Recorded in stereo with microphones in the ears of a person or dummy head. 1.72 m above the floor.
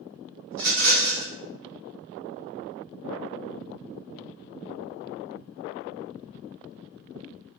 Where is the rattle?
60° right (ahead or behind), 1.5 m.